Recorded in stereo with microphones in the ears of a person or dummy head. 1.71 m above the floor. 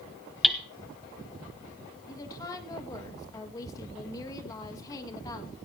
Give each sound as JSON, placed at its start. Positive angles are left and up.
{"t": 0.4, "sound": "hammering", "side_deg": 0, "distance_m": 0.7}
{"t": 2.1, "sound": "a woman speaking", "side_deg": 20, "distance_m": 2.0}